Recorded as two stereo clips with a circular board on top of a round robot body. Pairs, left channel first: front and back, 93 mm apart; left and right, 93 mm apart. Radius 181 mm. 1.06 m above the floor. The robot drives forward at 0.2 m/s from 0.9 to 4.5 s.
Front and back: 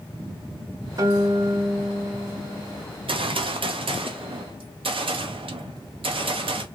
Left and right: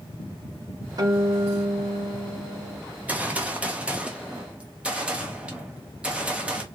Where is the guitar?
135° right, 1.2 m; by 2.8 s 145° right, 1.4 m.